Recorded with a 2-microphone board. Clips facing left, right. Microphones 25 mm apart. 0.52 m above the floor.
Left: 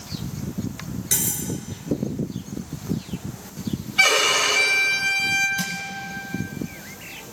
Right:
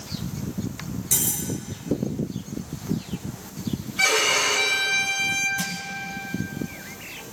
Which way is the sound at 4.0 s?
60° left (ahead or behind).